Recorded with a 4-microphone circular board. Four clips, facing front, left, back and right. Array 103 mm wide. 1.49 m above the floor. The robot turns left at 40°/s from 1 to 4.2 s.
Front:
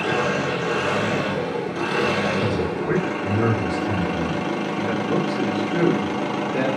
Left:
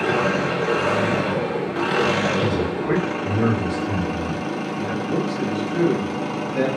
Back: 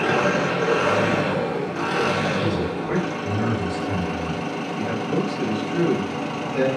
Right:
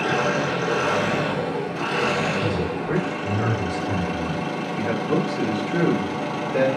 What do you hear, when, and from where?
0.0 s an engine running: 140° left, 0.8 m; by 6.8 s 15° left, 0.8 m
2.4 s a man speaking: 75° left, 1.8 m; by 4.4 s straight ahead, 1.8 m
4.7 s a man speaking: 50° right, 1.4 m